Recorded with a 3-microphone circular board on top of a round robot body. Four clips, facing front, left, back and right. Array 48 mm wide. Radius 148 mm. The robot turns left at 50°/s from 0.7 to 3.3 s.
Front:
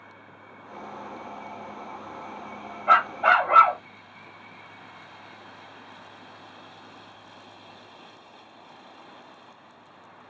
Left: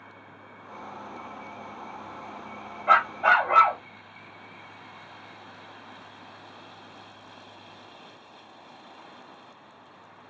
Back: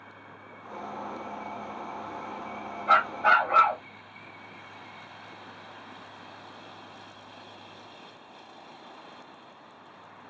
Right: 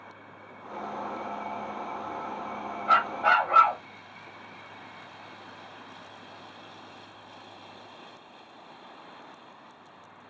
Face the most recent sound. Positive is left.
turn(degrees=20)